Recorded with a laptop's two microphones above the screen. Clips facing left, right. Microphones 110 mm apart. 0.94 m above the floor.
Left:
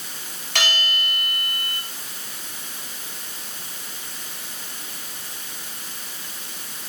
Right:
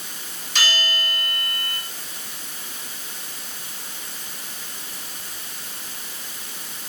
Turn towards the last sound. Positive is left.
turn(degrees=70)  # may be behind; listen again after turning